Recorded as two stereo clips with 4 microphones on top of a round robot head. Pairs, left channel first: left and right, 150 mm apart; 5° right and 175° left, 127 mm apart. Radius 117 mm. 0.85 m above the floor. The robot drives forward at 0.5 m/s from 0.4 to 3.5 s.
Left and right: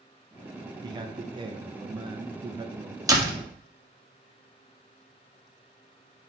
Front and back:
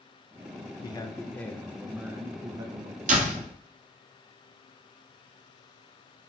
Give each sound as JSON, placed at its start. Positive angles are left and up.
{"t": 0.8, "sound": "a man speaking", "azimuth_deg": -40, "distance_m": 0.9}
{"t": 3.1, "sound": "a door slam", "azimuth_deg": -155, "distance_m": 1.5}